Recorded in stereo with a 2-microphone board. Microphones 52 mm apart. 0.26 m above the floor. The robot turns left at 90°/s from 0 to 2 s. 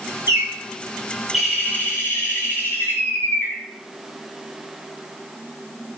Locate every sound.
0.3 s a bird: 80° right, 0.8 m; by 3.6 s 125° left, 0.8 m